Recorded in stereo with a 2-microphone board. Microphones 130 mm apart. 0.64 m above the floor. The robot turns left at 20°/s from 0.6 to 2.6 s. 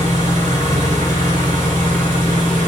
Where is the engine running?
70° right, 1.1 m; by 2.7 s 110° right, 1.1 m.